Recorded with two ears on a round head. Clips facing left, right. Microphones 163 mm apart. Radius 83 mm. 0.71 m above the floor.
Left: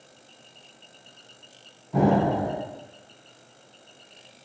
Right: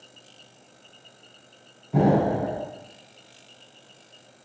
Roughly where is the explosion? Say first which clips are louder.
Right 1 dB; centre.